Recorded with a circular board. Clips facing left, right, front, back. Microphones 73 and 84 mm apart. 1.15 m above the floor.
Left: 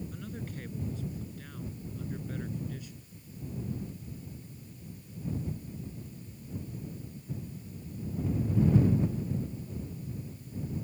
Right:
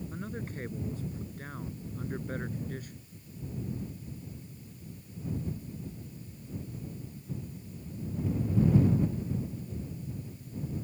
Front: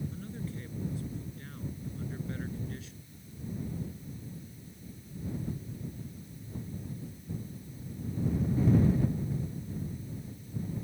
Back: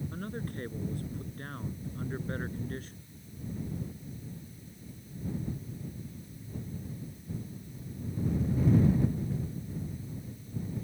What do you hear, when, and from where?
0.1 s a man speaking: 145° right; by 3.1 s 135° right